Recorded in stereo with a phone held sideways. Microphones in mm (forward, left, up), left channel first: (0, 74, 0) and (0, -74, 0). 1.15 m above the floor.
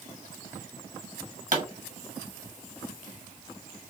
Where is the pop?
55° right (ahead or behind), 1.1 m.